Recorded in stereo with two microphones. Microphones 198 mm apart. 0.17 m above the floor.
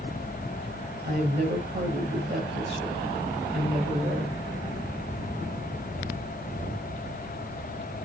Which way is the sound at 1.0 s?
50° right (ahead or behind).